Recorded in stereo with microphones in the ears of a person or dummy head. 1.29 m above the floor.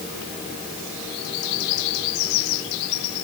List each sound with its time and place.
Only background noise.